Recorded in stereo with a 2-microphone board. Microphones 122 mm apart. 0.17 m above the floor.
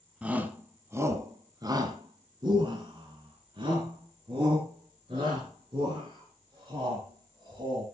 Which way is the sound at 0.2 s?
10° right (ahead or behind).